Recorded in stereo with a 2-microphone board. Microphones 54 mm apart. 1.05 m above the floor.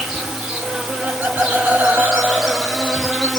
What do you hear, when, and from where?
0.0 s an insect: 10° right (ahead or behind), 3 m
1.0 s laughter: 35° right (ahead or behind), 4 m